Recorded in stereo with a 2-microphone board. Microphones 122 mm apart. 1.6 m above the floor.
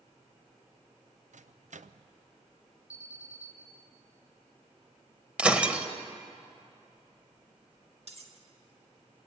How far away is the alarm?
About 2 m.